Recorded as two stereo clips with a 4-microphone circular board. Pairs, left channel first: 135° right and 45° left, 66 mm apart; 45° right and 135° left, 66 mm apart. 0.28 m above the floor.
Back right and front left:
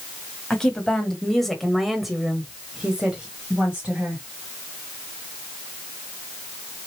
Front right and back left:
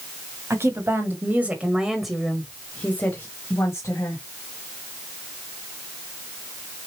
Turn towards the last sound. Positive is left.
turn(degrees=-25)